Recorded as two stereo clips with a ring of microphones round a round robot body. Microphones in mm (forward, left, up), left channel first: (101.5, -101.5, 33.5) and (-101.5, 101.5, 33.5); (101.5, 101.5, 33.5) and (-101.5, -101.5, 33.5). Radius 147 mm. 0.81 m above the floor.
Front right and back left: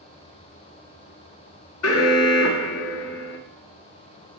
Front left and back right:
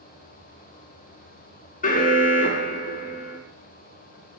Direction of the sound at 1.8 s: 15° right.